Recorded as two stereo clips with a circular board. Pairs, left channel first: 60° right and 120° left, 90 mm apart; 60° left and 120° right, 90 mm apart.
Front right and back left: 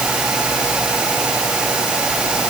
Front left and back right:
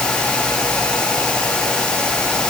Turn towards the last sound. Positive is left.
No sound to turn to.